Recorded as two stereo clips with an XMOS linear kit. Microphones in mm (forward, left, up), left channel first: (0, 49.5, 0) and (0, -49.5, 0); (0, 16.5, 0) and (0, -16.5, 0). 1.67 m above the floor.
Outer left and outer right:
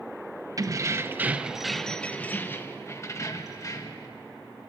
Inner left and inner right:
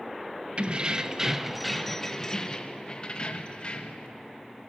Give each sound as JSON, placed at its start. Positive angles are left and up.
{"t": 0.6, "sound": "keys jangling", "side_deg": -35, "distance_m": 0.8}